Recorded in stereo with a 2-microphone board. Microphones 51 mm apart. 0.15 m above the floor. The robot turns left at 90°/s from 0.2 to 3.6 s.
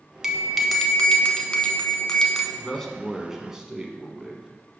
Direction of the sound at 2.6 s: 15° left (ahead or behind).